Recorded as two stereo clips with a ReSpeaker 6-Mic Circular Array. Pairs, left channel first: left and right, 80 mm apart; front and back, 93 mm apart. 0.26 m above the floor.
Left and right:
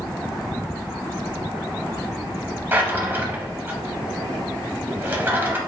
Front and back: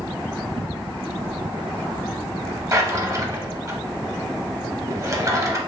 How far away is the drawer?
About 0.8 m.